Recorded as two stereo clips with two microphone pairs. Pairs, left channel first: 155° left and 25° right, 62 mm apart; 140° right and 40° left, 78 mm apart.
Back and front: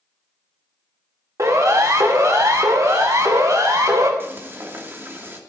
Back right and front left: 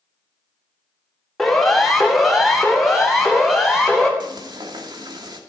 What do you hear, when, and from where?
1.4 s a siren: 55° right, 2.5 m; by 4.1 s 45° right, 4 m
4.2 s frying: 30° left, 2.5 m